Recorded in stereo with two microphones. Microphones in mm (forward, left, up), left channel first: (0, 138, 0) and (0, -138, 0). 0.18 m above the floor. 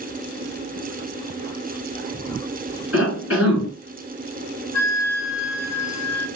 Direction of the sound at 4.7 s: 70° left (ahead or behind).